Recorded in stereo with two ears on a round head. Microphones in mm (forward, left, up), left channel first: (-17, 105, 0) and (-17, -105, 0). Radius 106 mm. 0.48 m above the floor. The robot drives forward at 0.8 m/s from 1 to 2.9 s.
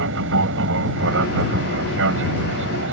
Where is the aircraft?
60° right (ahead or behind).